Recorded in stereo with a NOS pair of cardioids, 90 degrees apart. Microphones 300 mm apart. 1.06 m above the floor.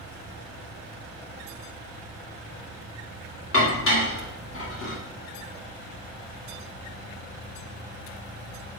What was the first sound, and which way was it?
Dishes clattering, 40° left.